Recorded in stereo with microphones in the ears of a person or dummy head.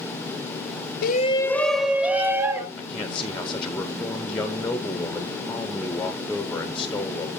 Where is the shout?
55° left (ahead or behind), 0.5 m; by 2.7 s 15° right (ahead or behind), 1.9 m.